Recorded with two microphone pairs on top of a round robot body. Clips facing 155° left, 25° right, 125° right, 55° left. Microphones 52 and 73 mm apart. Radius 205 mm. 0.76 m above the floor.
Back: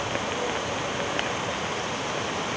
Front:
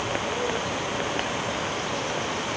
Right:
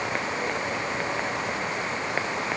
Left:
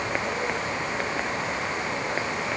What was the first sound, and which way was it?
Only background noise.